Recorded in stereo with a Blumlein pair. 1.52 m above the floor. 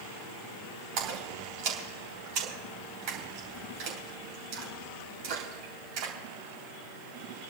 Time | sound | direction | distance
1.0 | a splash | 40° right | 3 m